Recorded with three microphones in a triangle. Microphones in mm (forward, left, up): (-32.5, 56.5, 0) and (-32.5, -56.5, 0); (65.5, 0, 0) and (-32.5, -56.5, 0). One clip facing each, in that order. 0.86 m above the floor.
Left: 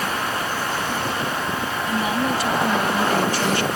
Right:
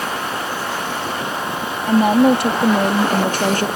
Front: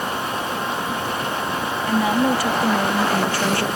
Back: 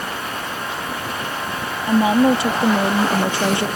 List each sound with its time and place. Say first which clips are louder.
1.9 s a woman speaking: right 11 dB, back 5 dB; 90° right; by 3.7 s 95° right